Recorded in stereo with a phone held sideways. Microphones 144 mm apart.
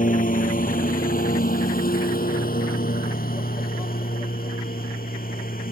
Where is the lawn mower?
70° left (ahead or behind); by 5.7 s 80° left.